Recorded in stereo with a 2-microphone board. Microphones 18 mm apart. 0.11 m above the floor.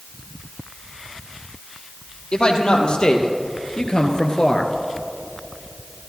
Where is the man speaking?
50° left (ahead or behind), 2.5 m; by 4.7 s 25° left (ahead or behind), 1.2 m.